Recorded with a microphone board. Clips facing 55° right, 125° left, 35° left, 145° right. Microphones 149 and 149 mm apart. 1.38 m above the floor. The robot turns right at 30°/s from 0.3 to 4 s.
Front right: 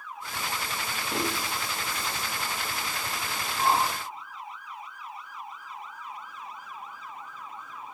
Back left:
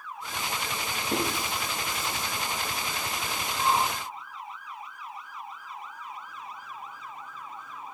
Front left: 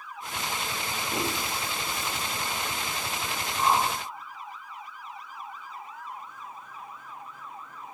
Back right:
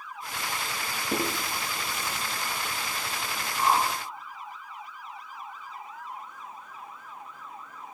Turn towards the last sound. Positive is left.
turn(degrees=-45)